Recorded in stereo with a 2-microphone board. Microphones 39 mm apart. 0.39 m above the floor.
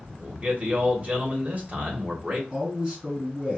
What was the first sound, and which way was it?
A man speaking, 35° right (ahead or behind).